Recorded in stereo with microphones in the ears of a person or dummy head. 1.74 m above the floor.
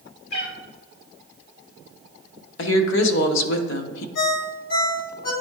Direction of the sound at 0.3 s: 70° left (ahead or behind).